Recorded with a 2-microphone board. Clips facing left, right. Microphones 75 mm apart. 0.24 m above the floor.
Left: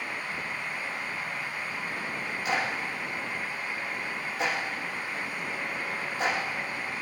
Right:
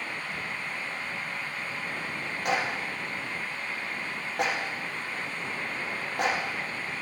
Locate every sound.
2.5 s a clap: 65° right (ahead or behind), 8.5 m